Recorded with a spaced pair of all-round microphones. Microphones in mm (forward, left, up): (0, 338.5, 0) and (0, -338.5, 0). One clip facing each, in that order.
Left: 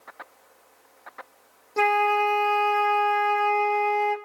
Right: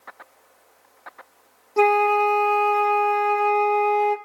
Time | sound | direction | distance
1.8 | a flute | 5° left (ahead or behind) | 0.9 m